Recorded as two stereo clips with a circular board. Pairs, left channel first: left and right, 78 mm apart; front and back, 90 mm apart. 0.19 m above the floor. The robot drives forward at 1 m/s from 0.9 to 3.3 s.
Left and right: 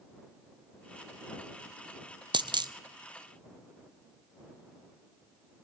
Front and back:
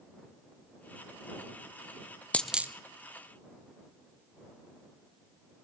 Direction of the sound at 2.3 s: 75° right.